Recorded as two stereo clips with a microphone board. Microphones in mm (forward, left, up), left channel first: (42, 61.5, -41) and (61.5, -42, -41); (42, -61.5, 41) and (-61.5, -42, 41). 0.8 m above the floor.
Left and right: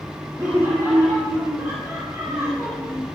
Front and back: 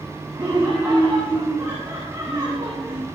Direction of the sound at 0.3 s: 135° right.